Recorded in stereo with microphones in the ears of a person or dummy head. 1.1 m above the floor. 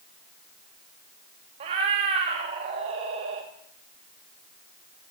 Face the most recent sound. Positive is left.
turn(degrees=-30)  # may be behind; listen again after turning